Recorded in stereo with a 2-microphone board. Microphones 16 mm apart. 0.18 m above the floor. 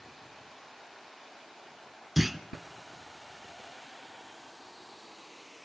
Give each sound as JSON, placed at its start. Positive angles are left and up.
{"t": 2.2, "sound": "a clunk", "side_deg": -15, "distance_m": 0.5}